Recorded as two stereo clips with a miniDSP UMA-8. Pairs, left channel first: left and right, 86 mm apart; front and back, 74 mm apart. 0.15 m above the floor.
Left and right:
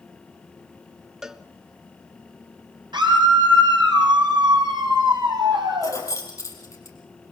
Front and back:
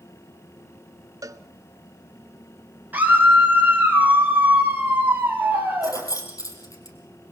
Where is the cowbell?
175° right, 0.8 m.